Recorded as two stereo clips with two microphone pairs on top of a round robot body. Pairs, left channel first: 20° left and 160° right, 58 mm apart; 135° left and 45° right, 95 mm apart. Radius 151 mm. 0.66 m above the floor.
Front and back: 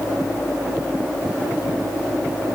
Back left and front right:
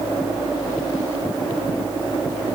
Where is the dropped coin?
No dropped coin in this recording.